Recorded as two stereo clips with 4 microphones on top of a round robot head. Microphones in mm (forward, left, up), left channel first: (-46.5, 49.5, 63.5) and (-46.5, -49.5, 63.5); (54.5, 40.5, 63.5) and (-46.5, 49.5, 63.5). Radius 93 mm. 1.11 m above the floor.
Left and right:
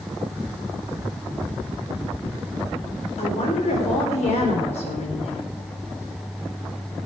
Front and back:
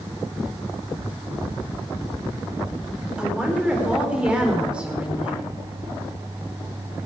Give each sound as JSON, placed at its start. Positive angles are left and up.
{"t": 3.2, "sound": "a woman speaking", "azimuth_deg": 95, "distance_m": 4.5}